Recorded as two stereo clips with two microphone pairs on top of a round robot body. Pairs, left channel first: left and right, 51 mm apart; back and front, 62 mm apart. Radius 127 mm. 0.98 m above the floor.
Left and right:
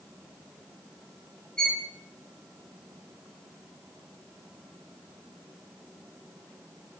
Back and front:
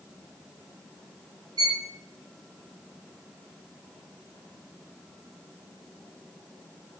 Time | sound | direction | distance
1.6 | a violin | 15° left | 3.5 m